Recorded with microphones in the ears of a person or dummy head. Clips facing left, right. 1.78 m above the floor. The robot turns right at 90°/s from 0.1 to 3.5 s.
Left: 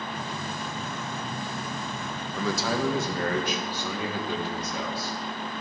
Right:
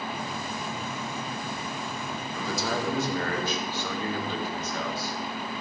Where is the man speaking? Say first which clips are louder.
Left 3 dB; 65° left, 1.6 m; by 5.1 s 170° left, 1.6 m.